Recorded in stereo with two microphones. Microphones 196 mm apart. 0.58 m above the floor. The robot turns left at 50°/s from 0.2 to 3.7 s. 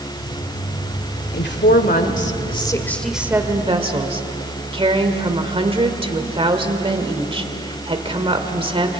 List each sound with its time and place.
1.3 s a woman speaking: 90° left, 1.8 m; by 9.0 s 30° right, 1.8 m